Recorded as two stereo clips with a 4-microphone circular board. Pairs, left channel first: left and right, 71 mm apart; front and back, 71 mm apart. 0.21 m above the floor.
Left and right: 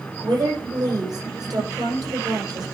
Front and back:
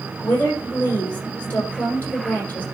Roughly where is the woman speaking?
Ahead right.